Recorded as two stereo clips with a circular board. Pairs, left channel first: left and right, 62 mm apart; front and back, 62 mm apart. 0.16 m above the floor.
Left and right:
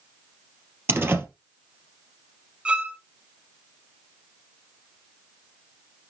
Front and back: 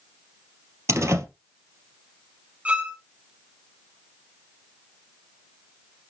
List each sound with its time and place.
0.9 s a door slam: 140° right, 2.5 m
2.6 s a violin: 140° right, 1.4 m